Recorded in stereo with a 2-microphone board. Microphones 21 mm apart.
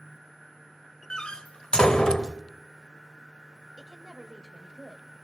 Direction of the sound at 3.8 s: 35° right (ahead or behind).